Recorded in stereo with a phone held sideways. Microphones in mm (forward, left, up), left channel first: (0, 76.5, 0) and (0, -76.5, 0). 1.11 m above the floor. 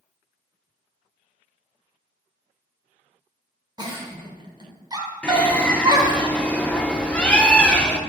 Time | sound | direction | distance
3.8 | a giggle | 30° right (ahead or behind) | 1.2 m
5.2 | a bird | 10° left (ahead or behind) | 0.6 m